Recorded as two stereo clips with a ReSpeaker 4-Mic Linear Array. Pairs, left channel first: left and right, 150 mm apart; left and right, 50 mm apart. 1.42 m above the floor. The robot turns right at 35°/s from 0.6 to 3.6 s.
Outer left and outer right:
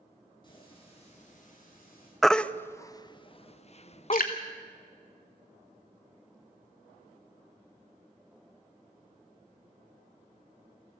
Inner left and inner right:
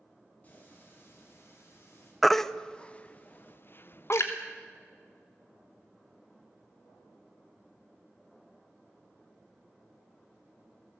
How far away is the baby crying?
About 0.6 m.